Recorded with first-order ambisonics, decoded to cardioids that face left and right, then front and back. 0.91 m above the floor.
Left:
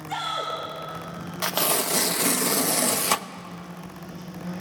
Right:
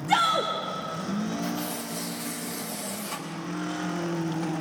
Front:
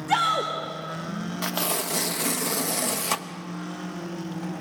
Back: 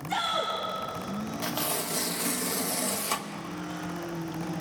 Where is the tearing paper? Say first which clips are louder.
Left 8 dB, front 4 dB; 70° left, 0.6 m.